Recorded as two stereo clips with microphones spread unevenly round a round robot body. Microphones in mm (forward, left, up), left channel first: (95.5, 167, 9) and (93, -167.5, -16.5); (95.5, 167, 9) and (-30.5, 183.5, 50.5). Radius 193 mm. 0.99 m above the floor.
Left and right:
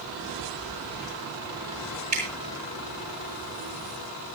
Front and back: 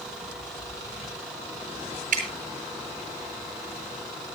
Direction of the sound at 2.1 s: 165° right.